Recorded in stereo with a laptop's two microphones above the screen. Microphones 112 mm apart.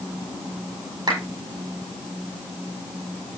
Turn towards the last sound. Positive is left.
turn(degrees=-40)  # may be behind; listen again after turning